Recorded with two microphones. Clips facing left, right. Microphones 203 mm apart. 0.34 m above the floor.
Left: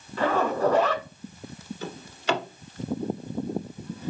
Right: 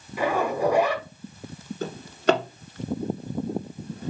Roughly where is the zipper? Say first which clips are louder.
Even; centre.